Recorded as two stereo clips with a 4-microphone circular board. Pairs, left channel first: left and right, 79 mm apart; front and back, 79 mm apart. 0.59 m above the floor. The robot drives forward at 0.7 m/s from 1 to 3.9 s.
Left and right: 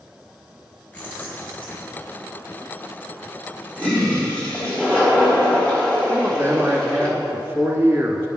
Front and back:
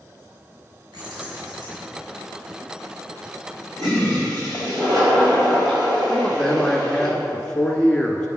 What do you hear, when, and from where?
0.9 s keys jangling: 160° left, 3 m; by 1.9 s 165° left, 3.5 m
3.8 s a toilet flushing: 165° left, 3 m
6.1 s a man speaking: 80° right, 1.1 m